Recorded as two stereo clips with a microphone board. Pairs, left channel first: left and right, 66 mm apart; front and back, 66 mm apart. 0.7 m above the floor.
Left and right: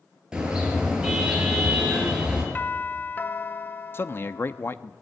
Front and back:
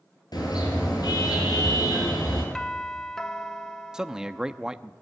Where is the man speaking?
105° left, 0.9 m.